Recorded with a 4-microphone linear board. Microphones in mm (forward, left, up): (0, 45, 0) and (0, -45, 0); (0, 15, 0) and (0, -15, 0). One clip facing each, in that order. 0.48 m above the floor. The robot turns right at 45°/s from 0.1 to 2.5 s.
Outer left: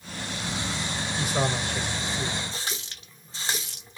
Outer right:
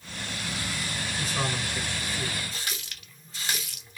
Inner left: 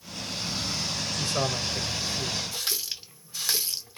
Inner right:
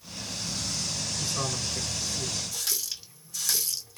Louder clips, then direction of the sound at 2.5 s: Outer left 2 dB, inner left 2 dB; 30° left (ahead or behind).